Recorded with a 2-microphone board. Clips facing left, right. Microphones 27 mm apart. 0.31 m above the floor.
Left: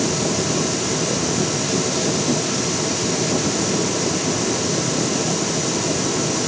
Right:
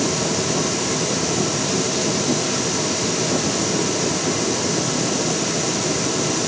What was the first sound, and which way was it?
Only background noise.